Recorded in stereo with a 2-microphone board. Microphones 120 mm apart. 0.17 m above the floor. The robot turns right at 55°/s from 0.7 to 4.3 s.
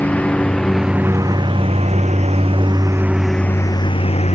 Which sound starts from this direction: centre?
A lawn mower, at 0.0 s.